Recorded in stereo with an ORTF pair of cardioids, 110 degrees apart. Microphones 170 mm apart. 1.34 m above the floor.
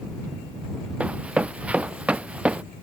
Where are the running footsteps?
10° right.